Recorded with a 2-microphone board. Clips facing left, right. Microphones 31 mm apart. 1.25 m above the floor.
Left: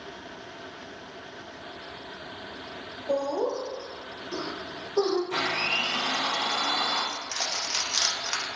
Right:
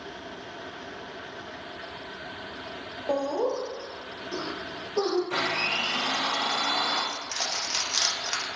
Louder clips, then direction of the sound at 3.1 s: Even; 40° right (ahead or behind).